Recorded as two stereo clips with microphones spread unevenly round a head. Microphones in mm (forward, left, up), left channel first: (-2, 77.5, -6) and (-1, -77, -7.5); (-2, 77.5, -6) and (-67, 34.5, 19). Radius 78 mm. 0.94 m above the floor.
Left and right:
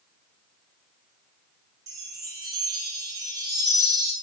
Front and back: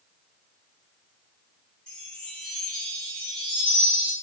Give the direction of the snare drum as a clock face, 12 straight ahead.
No snare drum in this recording.